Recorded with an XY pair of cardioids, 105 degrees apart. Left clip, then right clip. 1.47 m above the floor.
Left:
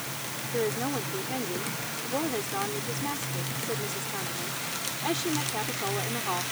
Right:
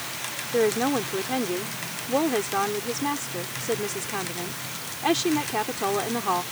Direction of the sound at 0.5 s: 45° right.